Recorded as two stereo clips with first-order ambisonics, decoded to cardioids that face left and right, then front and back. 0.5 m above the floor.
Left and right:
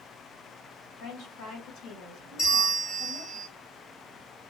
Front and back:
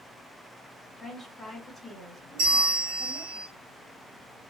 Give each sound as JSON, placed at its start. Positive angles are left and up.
{"t": 1.0, "sound": "a woman speaking", "azimuth_deg": 90, "distance_m": 2.0}
{"t": 2.4, "sound": "a bell", "azimuth_deg": 145, "distance_m": 2.0}